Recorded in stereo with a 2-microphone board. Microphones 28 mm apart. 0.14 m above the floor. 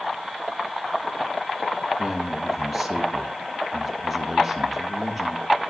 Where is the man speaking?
5° left (ahead or behind), 3 m.